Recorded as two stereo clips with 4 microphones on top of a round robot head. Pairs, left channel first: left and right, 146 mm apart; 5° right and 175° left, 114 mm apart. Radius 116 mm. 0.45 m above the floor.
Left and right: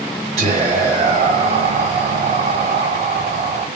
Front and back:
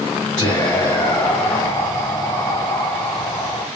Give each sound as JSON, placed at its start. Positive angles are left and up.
{"t": 0.4, "sound": "whispering", "azimuth_deg": -65, "distance_m": 1.1}